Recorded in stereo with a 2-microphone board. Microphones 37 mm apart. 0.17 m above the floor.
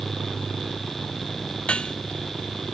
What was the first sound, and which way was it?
Dishes clattering, 30° left (ahead or behind).